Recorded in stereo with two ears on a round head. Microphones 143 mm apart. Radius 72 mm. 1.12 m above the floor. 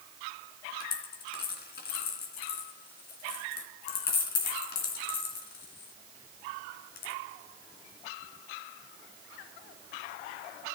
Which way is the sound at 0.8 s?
70° left (ahead or behind).